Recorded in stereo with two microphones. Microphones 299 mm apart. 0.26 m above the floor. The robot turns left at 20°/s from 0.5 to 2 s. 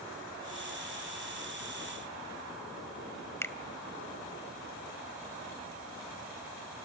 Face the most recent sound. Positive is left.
turn(degrees=10)  # may be behind; listen again after turning